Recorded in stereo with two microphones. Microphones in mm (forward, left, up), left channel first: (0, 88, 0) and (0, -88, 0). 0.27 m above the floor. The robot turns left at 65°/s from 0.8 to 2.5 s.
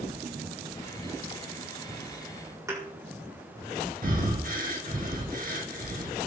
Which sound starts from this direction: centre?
A thud, at 2.7 s.